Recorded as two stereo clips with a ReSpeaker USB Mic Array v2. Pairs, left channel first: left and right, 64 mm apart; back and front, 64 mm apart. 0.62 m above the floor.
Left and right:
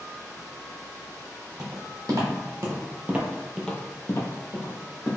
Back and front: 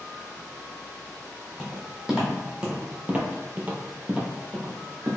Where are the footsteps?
80° right, 1.5 m; by 5.2 s 75° left, 1.4 m.